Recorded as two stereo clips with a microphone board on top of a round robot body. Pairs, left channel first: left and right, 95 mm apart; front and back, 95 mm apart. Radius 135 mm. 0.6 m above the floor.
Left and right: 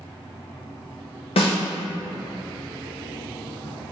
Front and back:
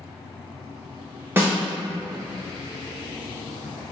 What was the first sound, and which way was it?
A snare drum, 115° left.